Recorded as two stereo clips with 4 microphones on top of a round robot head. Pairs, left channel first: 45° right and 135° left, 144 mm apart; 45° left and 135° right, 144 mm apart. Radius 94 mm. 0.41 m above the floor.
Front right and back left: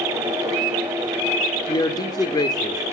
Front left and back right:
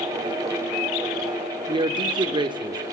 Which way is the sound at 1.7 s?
95° right.